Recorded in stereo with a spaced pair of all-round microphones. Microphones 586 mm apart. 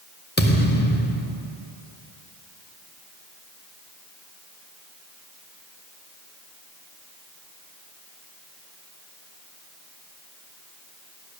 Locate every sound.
0.4 s a thud: 15° left (ahead or behind), 0.9 m